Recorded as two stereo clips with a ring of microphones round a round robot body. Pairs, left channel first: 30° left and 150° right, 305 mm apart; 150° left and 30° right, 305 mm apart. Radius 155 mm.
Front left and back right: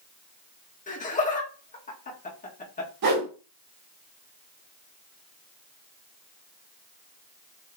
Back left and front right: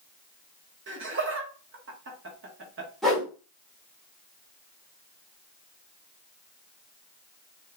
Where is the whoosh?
120° right, 1.9 m.